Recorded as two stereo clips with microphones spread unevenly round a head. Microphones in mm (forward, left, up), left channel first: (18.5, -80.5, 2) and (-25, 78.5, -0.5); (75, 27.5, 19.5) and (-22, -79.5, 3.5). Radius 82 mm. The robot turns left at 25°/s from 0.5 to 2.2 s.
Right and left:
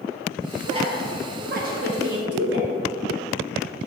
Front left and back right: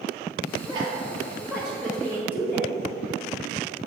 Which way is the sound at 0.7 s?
165° left.